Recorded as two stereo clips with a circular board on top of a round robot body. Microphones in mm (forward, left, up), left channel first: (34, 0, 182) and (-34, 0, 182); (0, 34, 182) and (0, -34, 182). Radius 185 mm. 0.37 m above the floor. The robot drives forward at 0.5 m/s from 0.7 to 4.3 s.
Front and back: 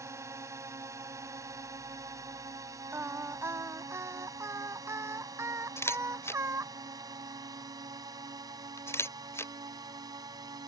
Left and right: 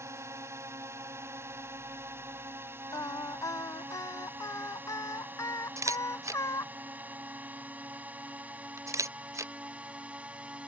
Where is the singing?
125° left; by 6.7 s 130° left.